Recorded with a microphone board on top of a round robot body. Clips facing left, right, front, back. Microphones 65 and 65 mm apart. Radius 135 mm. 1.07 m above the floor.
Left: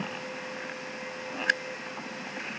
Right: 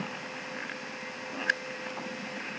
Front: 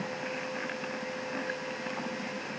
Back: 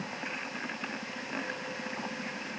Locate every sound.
Only background noise.